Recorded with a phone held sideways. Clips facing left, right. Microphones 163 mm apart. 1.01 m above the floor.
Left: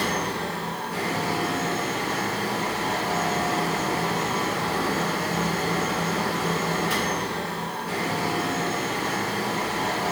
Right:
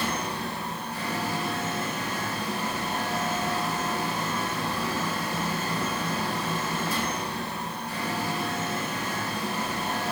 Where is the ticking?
I don't hear ticking.